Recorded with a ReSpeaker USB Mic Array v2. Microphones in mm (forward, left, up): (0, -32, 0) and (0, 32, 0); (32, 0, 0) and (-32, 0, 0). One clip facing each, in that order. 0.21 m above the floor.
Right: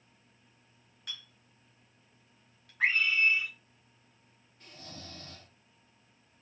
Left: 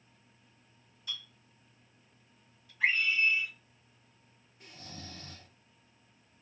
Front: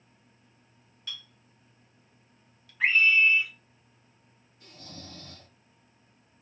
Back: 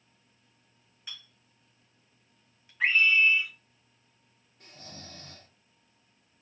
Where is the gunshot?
No gunshot in this recording.